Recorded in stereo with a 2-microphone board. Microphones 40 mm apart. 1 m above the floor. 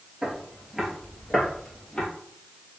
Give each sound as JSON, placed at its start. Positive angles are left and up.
{"t": 0.2, "sound": "footsteps", "side_deg": -20, "distance_m": 1.0}